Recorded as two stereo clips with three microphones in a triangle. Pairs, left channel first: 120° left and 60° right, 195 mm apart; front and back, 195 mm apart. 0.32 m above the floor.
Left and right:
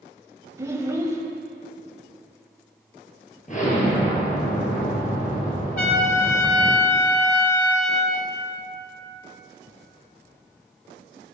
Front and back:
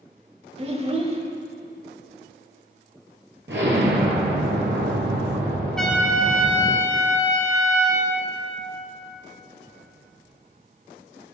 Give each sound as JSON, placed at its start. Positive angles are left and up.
{"t": 0.6, "sound": "a child speaking", "azimuth_deg": -130, "distance_m": 0.8}
{"t": 3.5, "sound": "an explosion", "azimuth_deg": 165, "distance_m": 1.5}
{"t": 5.8, "sound": "a trumpet", "azimuth_deg": 85, "distance_m": 1.1}